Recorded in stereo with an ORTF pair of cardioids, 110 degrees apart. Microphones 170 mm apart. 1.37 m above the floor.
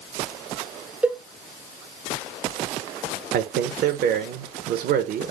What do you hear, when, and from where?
1.0 s a cowbell: 10° right, 0.6 m
3.3 s a man speaking: 65° right, 0.9 m